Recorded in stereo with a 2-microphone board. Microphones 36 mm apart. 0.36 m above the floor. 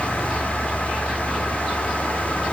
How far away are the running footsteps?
I don't hear running footsteps.